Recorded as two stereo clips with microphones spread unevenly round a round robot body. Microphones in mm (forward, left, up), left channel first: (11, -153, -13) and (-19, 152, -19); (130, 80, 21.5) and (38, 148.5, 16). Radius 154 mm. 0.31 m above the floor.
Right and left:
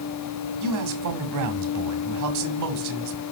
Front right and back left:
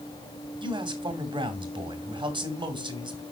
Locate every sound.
0.6 s a man speaking: 105° left, 2 m